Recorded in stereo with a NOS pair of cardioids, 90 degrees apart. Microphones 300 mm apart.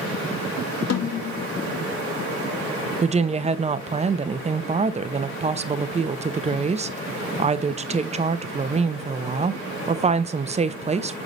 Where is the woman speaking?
20° right, 0.8 m.